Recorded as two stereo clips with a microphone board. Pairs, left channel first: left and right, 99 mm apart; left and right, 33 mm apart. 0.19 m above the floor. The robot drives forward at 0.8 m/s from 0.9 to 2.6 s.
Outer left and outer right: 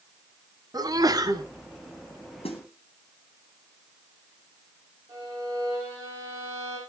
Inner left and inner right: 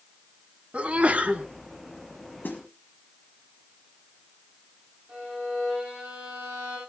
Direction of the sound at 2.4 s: 75° left (ahead or behind).